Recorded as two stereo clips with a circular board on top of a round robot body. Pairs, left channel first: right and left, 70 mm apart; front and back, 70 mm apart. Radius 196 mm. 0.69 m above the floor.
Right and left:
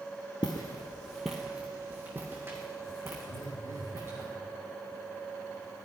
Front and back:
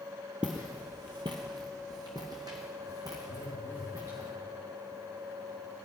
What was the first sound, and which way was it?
Footsteps, 100° right.